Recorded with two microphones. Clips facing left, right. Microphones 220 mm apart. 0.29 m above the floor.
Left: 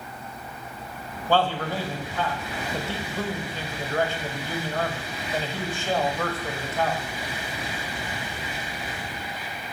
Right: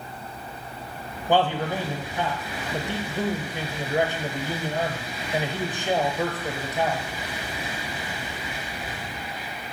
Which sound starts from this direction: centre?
A man speaking, at 1.3 s.